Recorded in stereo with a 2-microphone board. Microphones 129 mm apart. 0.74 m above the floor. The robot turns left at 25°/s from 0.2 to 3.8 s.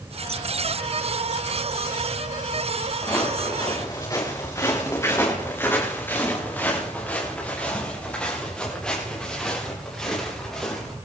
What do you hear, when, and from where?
3.0 s footsteps: 15° left (ahead or behind), 4 m; by 10.9 s centre (ahead or behind), 9.5 m